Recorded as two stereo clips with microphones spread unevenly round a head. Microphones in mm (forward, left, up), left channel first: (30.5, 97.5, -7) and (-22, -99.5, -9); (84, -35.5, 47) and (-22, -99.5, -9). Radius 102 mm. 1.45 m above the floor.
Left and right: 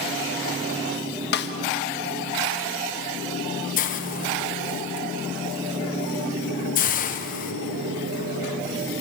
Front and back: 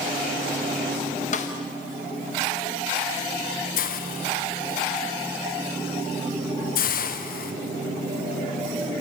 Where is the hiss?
25° left, 1.2 m.